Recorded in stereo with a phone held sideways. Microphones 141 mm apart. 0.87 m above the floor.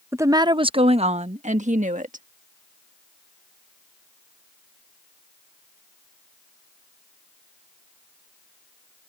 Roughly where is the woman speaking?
Centre.